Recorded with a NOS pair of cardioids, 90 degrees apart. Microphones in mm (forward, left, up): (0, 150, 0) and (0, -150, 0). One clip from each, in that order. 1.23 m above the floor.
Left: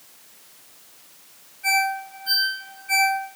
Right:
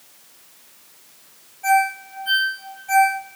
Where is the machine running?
No machine running in this recording.